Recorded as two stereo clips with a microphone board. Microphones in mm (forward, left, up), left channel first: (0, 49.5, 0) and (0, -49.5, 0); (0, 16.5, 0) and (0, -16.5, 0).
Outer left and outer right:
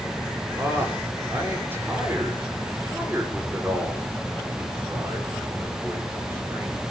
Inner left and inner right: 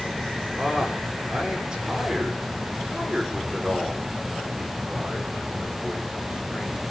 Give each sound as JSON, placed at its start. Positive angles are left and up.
{"t": 0.6, "sound": "a man speaking", "side_deg": -25, "distance_m": 6.5}